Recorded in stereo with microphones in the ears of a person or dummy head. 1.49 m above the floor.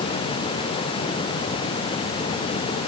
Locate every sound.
Only background noise.